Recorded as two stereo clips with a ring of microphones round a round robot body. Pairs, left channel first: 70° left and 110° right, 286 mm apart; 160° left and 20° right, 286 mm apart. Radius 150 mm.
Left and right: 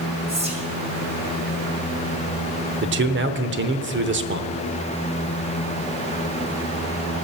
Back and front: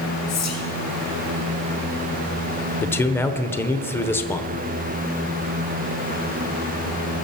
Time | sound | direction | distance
0.3 | whispering | straight behind | 2.5 m
2.8 | a man speaking | 125° right | 1.0 m